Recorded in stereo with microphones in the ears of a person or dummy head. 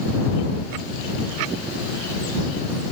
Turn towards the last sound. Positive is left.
No sound to turn to.